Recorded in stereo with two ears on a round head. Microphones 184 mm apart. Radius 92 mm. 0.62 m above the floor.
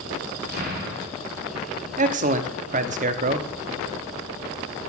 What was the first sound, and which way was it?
An explosion, 50° right (ahead or behind).